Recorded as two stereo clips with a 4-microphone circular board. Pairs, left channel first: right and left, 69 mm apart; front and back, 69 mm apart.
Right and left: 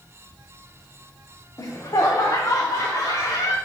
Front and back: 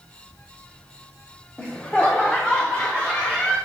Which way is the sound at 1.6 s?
70° right.